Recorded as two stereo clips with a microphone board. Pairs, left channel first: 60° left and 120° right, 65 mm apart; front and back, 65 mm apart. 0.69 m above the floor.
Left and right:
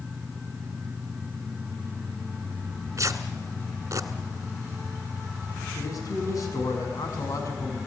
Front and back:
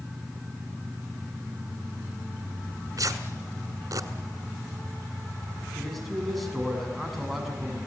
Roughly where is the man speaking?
Left.